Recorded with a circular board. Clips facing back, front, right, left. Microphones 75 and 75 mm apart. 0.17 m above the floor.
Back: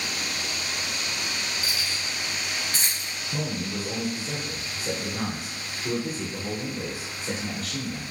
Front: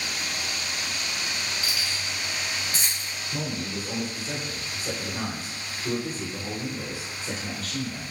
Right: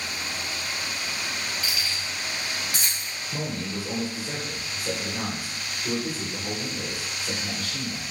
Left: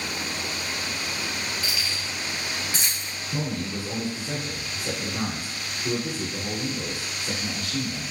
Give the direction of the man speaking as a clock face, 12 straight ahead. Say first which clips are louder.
Back 1 dB, left 2 dB; 8 o'clock.